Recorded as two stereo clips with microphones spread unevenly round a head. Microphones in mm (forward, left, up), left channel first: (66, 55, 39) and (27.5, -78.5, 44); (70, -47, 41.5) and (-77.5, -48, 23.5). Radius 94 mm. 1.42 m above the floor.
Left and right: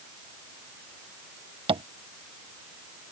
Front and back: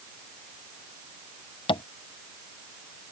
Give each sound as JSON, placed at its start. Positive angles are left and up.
{"t": 1.7, "sound": "tapping", "azimuth_deg": -55}